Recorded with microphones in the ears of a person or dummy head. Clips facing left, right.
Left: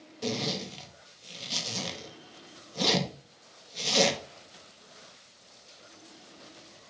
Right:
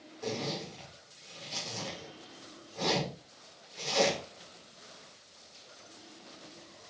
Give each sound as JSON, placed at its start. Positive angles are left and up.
{"t": 0.2, "sound": "a zipper", "side_deg": 50, "distance_m": 2.0}